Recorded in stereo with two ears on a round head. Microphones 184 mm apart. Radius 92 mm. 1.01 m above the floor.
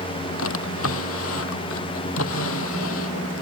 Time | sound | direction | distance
0.4 | a drawer | 80° left | ?